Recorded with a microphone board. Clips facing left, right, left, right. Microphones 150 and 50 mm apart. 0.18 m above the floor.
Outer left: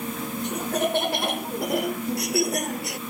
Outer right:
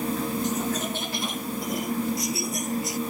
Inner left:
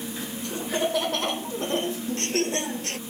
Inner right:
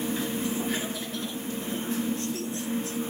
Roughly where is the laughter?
Left.